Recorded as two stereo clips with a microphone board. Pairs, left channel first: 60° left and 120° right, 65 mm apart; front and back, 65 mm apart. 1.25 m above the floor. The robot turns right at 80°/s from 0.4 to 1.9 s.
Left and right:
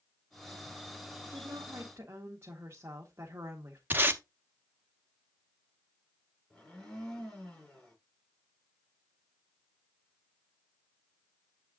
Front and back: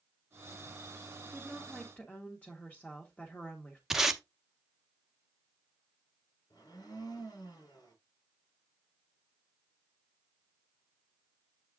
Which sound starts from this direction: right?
Tape being pulled, at 3.9 s.